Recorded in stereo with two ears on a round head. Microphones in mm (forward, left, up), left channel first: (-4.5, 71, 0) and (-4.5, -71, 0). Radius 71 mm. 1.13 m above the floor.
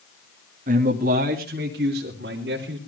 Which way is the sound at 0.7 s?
55° right (ahead or behind).